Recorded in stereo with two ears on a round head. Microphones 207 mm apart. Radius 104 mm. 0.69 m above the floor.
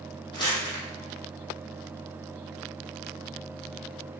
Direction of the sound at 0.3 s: 20° left (ahead or behind).